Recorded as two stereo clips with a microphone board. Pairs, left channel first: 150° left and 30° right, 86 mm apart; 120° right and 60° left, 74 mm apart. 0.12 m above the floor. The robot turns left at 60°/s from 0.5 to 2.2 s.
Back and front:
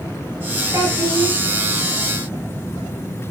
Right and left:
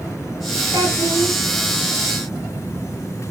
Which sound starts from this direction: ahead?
A child speaking, at 0.7 s.